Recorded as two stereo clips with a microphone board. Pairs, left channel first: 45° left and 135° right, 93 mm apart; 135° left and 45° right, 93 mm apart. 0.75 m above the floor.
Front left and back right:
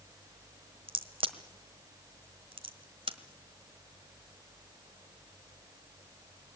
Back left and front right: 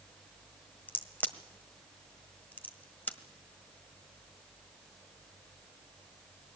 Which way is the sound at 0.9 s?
150° right.